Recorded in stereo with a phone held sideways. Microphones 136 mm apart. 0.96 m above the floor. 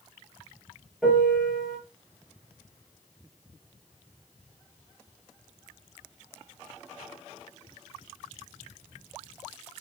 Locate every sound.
1.0 s a piano: centre (ahead or behind), 6.5 m